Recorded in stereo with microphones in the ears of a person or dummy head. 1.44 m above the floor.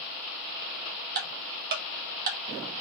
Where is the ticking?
40° right (ahead or behind), 1.1 m.